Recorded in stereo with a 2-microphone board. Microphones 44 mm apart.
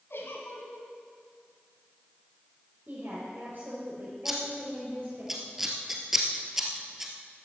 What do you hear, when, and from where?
0.1 s a giggle: 65° left (ahead or behind), 2.5 m
2.9 s a woman speaking: 55° right (ahead or behind), 6 m
4.2 s scissors: 10° right (ahead or behind), 1.9 m